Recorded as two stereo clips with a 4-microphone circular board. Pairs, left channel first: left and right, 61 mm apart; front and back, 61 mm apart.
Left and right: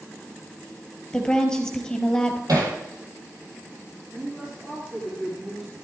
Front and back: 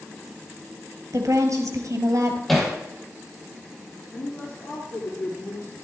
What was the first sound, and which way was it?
A woman speaking, 170° left.